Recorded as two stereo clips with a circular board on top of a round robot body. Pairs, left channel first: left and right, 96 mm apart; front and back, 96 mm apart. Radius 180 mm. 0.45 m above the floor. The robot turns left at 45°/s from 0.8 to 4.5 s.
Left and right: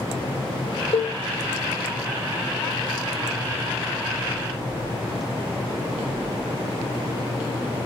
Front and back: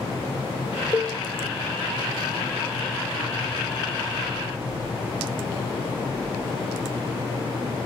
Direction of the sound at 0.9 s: 75° left.